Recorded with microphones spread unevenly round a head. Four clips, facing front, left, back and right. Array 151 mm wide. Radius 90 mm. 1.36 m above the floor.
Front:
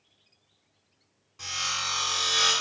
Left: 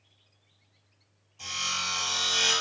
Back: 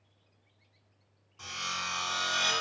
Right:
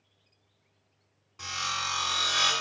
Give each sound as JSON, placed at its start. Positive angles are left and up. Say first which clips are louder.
{"t": 1.4, "sound": "sawing", "louder": "right 2 dB, front 3 dB", "azimuth_deg": -80, "distance_m": 1.7}